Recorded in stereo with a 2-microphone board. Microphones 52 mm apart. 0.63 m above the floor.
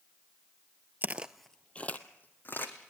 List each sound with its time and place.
1.0 s footsteps: 35° right (ahead or behind), 0.7 m; by 2.9 s 40° left (ahead or behind), 2.5 m